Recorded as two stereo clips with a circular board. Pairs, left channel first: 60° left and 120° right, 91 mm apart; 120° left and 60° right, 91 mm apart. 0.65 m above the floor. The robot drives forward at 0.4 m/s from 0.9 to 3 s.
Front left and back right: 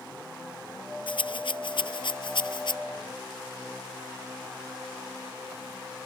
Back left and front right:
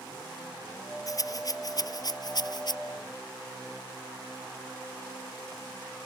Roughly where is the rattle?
Left.